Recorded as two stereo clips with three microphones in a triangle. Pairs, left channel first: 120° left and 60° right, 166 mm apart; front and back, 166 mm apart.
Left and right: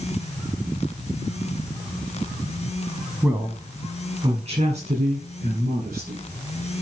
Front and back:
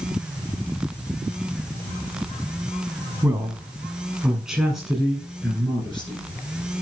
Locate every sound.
3.2 s a man speaking: 125° right, 1.1 m; by 6.2 s 85° right, 2.5 m